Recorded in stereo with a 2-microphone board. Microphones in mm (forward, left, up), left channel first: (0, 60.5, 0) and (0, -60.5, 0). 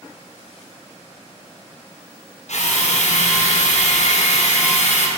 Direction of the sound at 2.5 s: 75° left (ahead or behind).